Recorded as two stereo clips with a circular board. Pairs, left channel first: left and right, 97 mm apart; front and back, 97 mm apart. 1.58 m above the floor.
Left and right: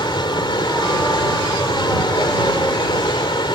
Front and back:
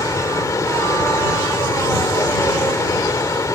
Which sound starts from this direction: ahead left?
Running water, at 0.0 s.